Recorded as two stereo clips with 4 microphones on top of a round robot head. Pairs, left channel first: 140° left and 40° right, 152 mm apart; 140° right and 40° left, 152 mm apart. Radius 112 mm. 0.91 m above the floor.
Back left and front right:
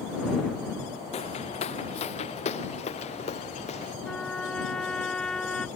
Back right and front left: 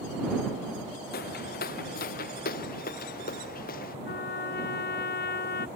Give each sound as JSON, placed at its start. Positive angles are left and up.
{"t": 1.1, "sound": "footsteps", "azimuth_deg": -170}
{"t": 4.0, "sound": "a trumpet", "azimuth_deg": -135}